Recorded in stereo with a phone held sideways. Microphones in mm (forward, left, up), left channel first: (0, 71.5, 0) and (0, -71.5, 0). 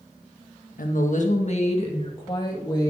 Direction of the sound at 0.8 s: 75° left (ahead or behind).